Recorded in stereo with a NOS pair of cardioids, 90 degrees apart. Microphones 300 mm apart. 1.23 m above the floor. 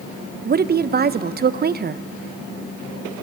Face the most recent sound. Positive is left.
turn(degrees=-30)